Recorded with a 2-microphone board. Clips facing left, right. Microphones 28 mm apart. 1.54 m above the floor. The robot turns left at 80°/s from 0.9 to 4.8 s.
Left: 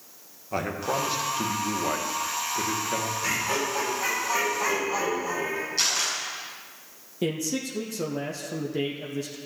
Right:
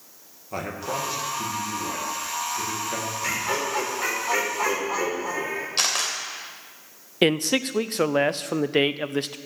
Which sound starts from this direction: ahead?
Laughter, at 3.2 s.